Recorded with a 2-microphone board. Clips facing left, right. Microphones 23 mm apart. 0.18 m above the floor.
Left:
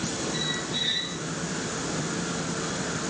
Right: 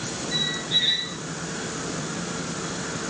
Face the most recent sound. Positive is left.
turn(degrees=-50)  # may be behind; listen again after turning